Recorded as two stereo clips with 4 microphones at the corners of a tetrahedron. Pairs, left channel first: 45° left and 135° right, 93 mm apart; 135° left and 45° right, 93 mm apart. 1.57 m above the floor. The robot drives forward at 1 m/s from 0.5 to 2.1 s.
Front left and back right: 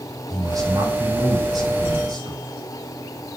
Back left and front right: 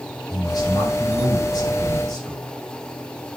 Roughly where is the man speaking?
Behind.